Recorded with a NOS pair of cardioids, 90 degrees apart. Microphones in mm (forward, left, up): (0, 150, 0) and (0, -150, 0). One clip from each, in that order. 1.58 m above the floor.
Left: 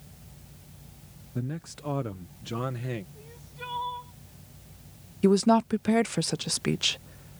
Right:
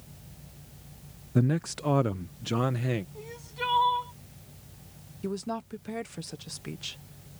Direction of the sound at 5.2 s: 60° left.